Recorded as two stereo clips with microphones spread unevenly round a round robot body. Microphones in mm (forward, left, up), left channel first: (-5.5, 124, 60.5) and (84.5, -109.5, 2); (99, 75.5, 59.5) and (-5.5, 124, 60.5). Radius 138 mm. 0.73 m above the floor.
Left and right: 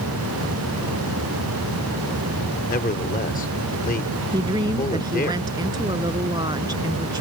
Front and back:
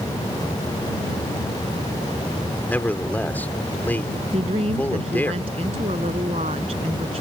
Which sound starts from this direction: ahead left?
A man speaking, at 2.7 s.